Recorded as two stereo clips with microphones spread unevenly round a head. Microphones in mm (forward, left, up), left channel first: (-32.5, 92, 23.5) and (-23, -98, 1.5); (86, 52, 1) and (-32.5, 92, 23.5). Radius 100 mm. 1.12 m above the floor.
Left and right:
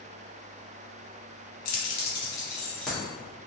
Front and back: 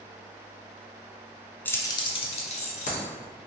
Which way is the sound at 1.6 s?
65° left.